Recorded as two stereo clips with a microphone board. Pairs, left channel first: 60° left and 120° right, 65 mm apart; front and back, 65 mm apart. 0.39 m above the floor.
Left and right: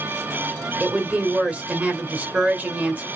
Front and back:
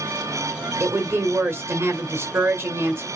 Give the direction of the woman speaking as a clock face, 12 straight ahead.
6 o'clock.